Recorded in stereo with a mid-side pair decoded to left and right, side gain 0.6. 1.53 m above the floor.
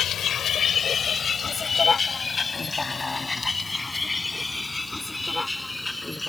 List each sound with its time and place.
0.0 s a vehicle: 50° left; by 6.3 s 10° left